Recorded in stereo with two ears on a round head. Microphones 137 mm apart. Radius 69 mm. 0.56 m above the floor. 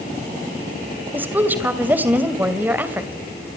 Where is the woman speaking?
10° right (ahead or behind), 2.5 m.